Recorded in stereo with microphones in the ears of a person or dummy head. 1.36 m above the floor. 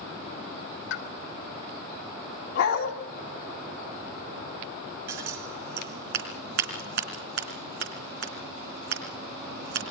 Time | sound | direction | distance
0.9 | a pop | 70° left (ahead or behind) | 3 m
2.5 | a dog barking | 80° left | 4.5 m
5.1 | scissors | 55° right (ahead or behind) | 3.5 m